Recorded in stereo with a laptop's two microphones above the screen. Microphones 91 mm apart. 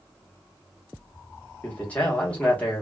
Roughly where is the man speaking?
Centre.